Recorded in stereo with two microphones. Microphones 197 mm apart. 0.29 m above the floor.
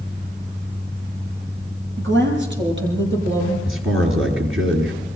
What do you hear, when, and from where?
2.0 s a woman speaking: 65° right (ahead or behind), 7.5 m; by 3.5 s 60° right (ahead or behind), 8.5 m
3.6 s a man speaking: 75° right (ahead or behind), 5.5 m